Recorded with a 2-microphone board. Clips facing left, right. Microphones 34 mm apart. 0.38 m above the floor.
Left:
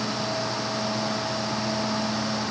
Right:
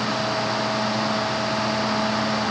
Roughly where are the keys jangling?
I don't hear keys jangling.